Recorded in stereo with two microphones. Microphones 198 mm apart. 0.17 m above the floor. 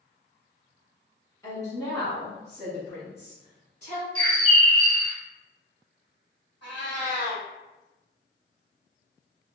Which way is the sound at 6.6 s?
60° left (ahead or behind).